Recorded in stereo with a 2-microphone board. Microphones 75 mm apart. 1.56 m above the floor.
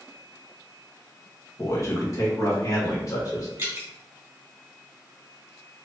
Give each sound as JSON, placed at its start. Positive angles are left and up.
{"t": 1.6, "sound": "a man speaking", "side_deg": 40, "distance_m": 1.2}
{"t": 3.6, "sound": "dripping", "side_deg": -30, "distance_m": 1.8}